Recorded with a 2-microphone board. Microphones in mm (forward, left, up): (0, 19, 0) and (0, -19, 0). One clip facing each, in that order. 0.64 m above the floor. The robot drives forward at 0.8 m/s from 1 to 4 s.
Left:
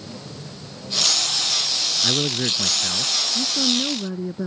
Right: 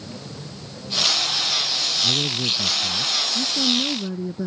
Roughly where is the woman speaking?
Centre.